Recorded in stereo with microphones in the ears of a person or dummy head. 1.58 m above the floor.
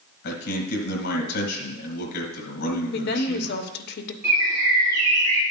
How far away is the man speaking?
About 1.9 m.